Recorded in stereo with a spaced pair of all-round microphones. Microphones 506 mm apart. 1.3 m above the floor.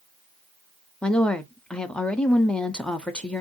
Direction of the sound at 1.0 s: Centre (ahead or behind).